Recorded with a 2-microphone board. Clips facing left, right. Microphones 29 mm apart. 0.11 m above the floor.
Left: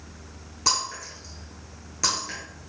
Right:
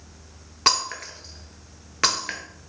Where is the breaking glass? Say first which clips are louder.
Right 4 dB; 50° right (ahead or behind), 0.9 m.